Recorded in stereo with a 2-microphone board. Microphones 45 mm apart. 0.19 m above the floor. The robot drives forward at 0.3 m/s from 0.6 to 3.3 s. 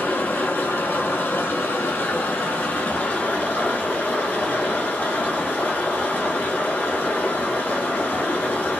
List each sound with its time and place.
0.0 s running water: 55° left (ahead or behind), 0.8 m; by 8.8 s 40° left (ahead or behind), 0.9 m